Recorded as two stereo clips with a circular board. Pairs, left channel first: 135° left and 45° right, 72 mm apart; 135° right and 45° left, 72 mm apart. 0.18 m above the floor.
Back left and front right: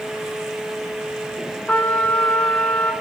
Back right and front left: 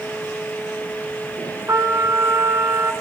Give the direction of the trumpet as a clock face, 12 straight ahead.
10 o'clock.